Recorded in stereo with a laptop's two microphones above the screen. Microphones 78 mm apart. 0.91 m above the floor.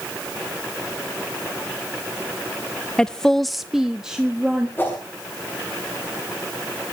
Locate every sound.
3.0 s a woman speaking: 10° left (ahead or behind), 0.8 m; by 4.7 s 10° right (ahead or behind), 1.7 m
4.8 s a whoosh: 25° left (ahead or behind), 8 m